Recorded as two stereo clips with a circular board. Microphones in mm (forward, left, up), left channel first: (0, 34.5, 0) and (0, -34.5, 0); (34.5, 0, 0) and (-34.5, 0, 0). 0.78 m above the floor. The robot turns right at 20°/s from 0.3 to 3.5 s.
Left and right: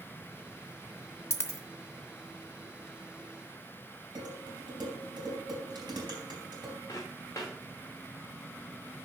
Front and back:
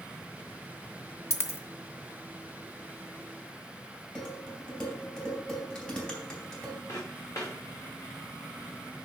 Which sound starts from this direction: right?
Dishes clattering, at 4.2 s.